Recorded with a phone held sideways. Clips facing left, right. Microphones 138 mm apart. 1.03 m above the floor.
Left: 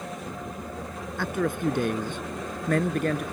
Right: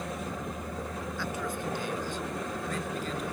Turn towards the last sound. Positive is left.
turn(degrees=65)  # may be behind; listen again after turning